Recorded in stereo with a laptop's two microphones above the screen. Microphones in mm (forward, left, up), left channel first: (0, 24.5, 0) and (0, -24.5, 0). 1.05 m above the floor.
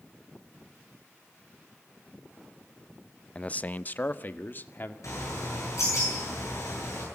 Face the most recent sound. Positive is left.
turn(degrees=85)